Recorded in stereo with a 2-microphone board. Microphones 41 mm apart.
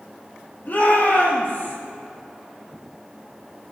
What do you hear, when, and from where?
0.7 s a shout: 45° left (ahead or behind), 6 m; by 1.8 s 35° left (ahead or behind), 5.5 m